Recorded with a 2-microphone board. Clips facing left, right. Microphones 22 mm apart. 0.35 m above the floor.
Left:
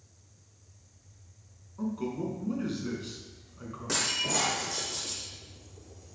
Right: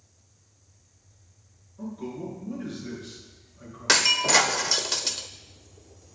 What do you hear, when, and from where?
1.8 s a man speaking: 60° left (ahead or behind), 4 m
3.9 s breaking glass: 65° right (ahead or behind), 0.7 m